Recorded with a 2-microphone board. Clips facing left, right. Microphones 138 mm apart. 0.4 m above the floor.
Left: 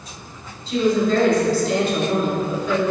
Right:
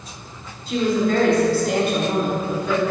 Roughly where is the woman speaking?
Right.